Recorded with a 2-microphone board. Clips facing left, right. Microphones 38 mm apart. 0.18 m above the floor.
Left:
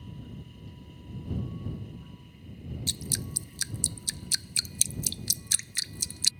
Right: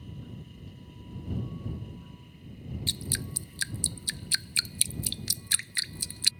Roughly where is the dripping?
Right.